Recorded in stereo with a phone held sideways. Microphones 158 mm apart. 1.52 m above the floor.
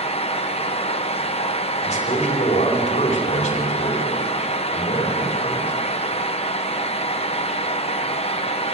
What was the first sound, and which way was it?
A fan, 40° left (ahead or behind).